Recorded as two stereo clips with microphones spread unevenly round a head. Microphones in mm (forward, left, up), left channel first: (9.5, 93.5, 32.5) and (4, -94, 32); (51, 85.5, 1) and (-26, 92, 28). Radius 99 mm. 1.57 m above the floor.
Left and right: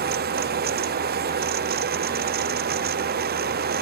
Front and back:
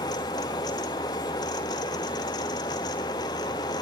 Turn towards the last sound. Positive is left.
turn(degrees=-50)